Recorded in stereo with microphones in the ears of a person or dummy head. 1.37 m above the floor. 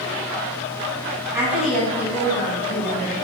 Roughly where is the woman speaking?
Centre.